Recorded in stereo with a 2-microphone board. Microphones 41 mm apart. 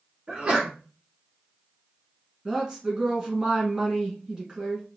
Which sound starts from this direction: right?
A sneeze, at 0.3 s.